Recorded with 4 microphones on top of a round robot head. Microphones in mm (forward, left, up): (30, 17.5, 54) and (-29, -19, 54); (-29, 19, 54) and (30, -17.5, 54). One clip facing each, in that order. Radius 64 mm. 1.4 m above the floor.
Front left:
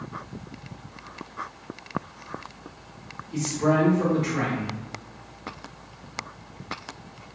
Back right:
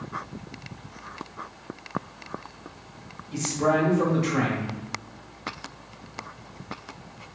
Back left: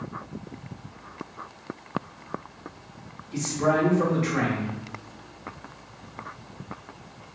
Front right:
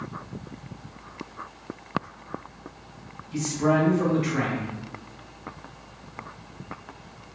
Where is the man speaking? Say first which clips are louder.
Even, front right 1 dB; 150° right, 1.8 m.